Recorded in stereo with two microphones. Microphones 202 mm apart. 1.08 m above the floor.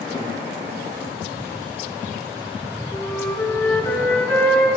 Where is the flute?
10° left (ahead or behind), 6.5 m.